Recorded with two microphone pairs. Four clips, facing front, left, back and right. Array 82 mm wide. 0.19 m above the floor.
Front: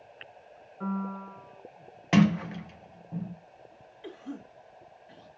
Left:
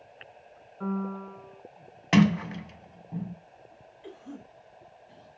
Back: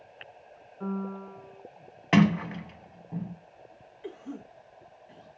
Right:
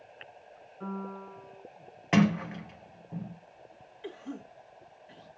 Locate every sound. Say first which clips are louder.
0.8 s a piano: left 6 dB, even; 45° left, 1.5 m
2.1 s a sliding door: left 3 dB, back 1 dB; 155° left, 0.6 m
4.0 s a cough: right 3 dB, back 1 dB; 90° right, 1.1 m